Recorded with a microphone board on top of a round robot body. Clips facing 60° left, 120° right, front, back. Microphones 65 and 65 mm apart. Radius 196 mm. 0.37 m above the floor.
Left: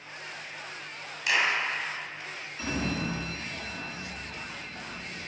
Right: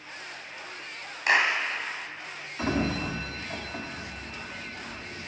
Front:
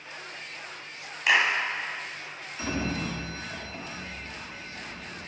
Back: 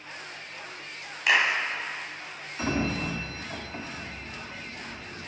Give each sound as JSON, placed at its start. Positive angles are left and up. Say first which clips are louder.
{"t": 1.3, "sound": "a clap", "louder": "right 3 dB, even", "azimuth_deg": -95, "distance_m": 1.3}
{"t": 2.6, "sound": "a sliding door", "louder": "right 4 dB, back 2 dB", "azimuth_deg": -130, "distance_m": 1.2}